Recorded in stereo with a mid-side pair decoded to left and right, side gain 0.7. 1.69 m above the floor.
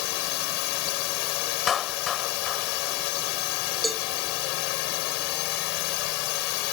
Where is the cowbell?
Straight ahead.